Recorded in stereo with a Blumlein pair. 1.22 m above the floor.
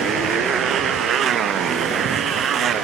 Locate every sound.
0.0 s a motorcycle: 25° right